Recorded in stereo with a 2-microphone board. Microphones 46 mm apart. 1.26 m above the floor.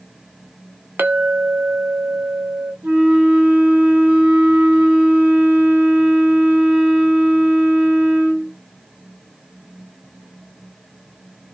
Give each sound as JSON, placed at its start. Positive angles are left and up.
{"t": 1.0, "sound": "a clink", "side_deg": -45, "distance_m": 0.7}
{"t": 2.8, "sound": "a flute", "side_deg": -40, "distance_m": 1.1}